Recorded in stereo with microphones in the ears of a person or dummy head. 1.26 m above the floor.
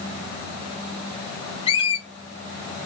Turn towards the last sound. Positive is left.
turn(degrees=35)  # may be behind; listen again after turning